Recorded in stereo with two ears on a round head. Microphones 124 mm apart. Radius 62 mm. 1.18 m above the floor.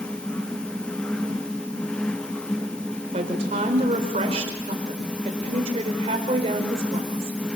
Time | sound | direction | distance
3.1 | a woman speaking | 45° right (ahead or behind) | 4.5 m